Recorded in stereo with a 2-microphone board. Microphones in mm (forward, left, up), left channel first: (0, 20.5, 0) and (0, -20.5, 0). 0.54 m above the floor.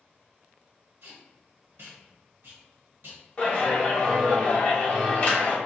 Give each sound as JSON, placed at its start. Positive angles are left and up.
{"t": 1.0, "sound": "tape being pulled", "side_deg": -70, "distance_m": 1.0}
{"t": 3.4, "sound": "a clap", "side_deg": 30, "distance_m": 1.1}